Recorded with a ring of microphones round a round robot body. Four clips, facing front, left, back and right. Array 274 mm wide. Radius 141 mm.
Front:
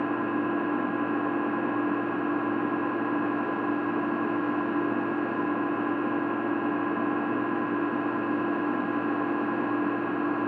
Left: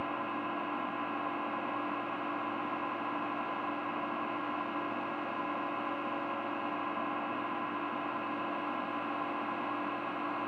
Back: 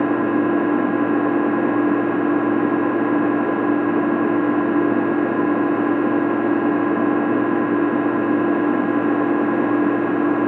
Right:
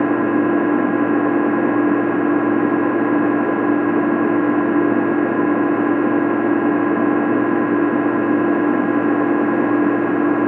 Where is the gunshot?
I don't hear a gunshot.